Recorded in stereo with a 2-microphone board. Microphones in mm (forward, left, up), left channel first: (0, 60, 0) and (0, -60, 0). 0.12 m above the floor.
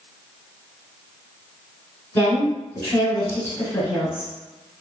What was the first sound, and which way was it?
A woman speaking, 20° left (ahead or behind).